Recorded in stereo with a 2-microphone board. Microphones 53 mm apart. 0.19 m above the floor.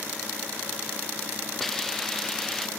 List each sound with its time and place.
1.6 s a hiss: 10° left (ahead or behind)